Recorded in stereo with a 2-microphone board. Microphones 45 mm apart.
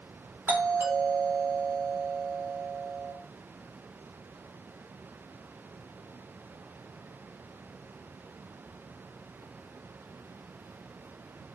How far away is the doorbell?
About 3.5 m.